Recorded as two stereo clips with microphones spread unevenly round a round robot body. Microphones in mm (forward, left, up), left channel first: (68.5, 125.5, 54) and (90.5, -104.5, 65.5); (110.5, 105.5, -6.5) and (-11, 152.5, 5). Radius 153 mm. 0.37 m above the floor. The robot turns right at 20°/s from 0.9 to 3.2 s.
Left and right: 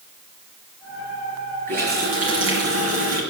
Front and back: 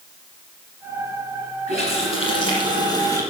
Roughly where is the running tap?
Behind right.